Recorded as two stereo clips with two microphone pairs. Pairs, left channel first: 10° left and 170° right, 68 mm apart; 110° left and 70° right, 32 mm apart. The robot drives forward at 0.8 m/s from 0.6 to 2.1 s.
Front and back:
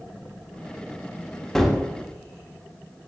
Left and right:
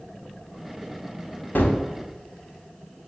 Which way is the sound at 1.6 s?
95° left.